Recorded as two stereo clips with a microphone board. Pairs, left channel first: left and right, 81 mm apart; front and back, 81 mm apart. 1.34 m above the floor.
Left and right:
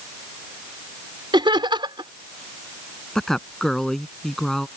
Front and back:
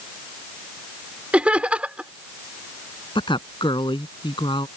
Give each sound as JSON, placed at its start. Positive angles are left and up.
{"t": 1.3, "sound": "laughter", "azimuth_deg": -105}
{"t": 3.1, "sound": "a woman speaking", "azimuth_deg": 5}